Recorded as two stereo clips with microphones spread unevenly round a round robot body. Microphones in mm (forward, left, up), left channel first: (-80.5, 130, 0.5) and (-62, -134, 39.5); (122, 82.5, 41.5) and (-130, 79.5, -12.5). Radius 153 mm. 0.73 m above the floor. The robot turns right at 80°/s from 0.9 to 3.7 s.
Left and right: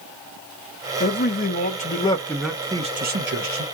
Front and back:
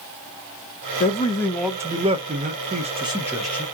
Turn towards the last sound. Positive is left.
turn(degrees=-85)